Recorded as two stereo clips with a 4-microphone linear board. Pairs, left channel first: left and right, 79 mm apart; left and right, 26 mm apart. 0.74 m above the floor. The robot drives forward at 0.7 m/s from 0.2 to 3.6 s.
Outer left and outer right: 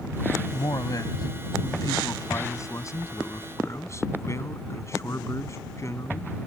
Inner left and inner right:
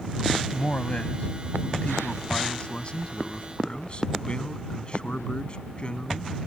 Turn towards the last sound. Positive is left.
turn(degrees=40)  # may be behind; listen again after turning